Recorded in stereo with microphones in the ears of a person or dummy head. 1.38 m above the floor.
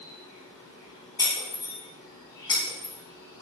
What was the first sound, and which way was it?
An insect, 25° left (ahead or behind).